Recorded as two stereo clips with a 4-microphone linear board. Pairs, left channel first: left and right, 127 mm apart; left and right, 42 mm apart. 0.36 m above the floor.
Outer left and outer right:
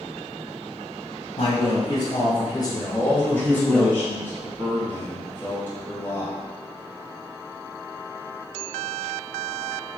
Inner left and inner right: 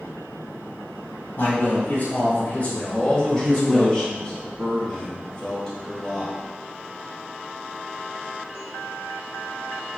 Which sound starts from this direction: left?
A man speaking, at 1.4 s.